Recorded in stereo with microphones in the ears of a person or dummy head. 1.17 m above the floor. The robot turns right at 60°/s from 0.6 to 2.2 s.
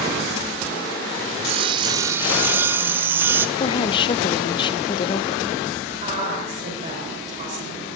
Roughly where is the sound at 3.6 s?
Left.